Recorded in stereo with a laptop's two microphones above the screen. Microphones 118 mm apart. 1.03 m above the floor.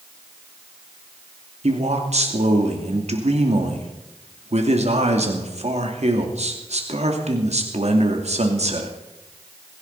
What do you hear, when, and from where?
1.6 s a man speaking: 70° right (ahead or behind), 2.5 m